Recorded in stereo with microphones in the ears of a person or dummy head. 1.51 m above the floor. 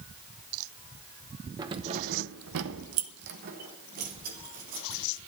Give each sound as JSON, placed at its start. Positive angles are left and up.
{"t": 1.6, "sound": "keys jangling", "side_deg": -20, "distance_m": 0.8}